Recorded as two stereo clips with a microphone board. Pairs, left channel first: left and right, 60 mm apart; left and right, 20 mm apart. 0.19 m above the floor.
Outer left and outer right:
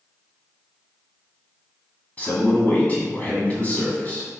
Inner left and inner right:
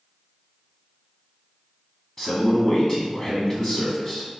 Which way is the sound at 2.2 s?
25° left (ahead or behind).